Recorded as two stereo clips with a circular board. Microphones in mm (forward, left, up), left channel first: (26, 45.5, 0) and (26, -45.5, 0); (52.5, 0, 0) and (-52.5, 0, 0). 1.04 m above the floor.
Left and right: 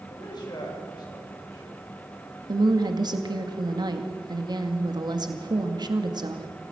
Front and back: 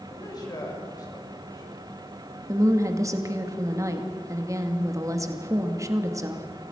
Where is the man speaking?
50° left, 6 m.